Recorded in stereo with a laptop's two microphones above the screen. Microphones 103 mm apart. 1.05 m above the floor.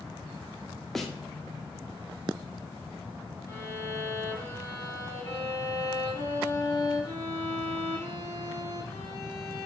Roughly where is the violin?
Left.